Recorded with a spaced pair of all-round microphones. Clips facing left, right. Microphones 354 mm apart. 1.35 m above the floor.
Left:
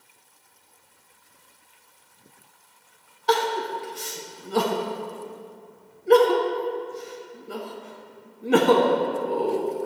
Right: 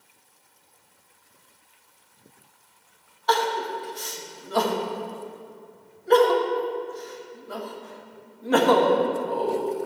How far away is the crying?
About 1.0 m.